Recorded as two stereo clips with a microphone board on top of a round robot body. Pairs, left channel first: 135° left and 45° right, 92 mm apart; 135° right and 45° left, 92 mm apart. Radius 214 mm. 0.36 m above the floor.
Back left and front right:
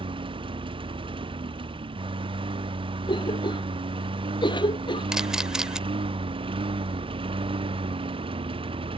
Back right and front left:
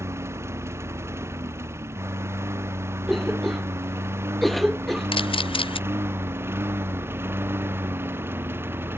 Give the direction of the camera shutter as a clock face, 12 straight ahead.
4 o'clock.